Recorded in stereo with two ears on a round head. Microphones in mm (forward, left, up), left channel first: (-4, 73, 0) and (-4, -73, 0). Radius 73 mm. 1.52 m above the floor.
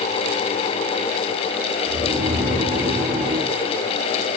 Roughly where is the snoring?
Right.